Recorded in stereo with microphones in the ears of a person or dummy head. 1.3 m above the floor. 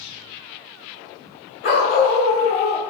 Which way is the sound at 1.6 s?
65° left (ahead or behind).